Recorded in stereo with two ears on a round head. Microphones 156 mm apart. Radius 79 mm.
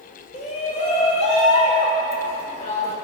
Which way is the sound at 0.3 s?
40° left (ahead or behind).